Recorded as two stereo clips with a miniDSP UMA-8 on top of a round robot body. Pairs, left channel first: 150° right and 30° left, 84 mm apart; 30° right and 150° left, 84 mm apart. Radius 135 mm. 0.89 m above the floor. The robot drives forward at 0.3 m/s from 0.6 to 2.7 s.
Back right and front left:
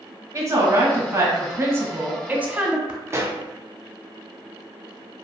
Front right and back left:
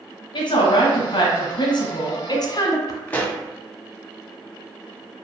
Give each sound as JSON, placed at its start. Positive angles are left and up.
{"t": 0.3, "sound": "a woman speaking", "azimuth_deg": -20, "distance_m": 1.2}
{"t": 3.1, "sound": "a pop", "azimuth_deg": 25, "distance_m": 0.7}